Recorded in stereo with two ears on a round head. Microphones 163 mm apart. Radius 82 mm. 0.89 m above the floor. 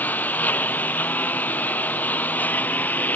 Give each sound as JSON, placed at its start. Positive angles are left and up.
{"t": 0.0, "sound": "a lawn mower", "side_deg": 10}